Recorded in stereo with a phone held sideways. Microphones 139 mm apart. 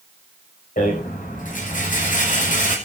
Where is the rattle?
70° left (ahead or behind), 7 m.